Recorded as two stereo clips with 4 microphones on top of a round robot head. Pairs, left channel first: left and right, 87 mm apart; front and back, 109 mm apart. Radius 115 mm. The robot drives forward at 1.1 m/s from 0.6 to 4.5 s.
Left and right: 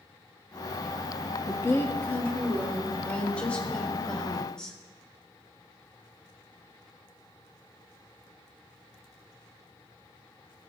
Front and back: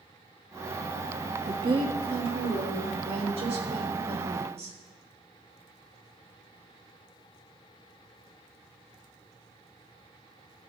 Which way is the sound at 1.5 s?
140° left.